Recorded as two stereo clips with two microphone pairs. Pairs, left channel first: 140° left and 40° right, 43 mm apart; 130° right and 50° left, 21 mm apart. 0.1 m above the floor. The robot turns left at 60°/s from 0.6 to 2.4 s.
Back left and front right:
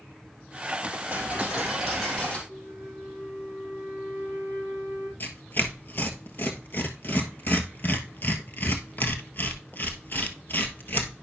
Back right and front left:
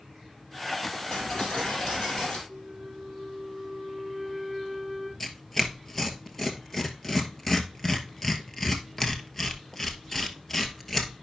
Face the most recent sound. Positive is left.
turn(degrees=160)